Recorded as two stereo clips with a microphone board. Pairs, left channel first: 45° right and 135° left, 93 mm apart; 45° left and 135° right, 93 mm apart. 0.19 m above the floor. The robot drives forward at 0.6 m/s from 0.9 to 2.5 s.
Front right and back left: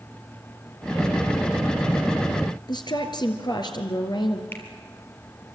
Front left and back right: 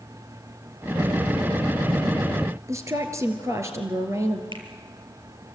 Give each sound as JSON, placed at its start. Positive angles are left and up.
{"t": 2.7, "sound": "a woman speaking", "azimuth_deg": -80, "distance_m": 3.5}
{"t": 4.5, "sound": "a finger snap", "azimuth_deg": -110, "distance_m": 4.5}